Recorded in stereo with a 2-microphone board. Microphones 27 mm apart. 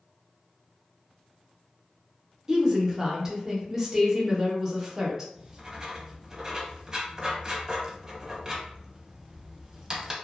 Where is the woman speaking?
20° right (ahead or behind), 0.8 m.